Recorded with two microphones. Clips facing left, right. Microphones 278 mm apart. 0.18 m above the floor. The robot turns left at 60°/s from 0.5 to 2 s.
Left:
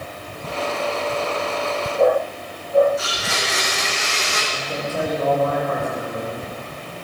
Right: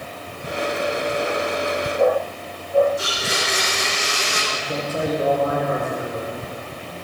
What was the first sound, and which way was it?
A blender, 30° right (ahead or behind).